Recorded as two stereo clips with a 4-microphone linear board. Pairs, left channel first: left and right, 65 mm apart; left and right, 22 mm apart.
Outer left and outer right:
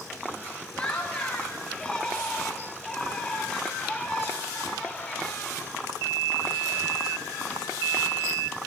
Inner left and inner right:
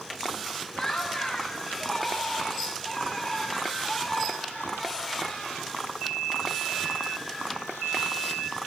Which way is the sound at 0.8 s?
10° left (ahead or behind).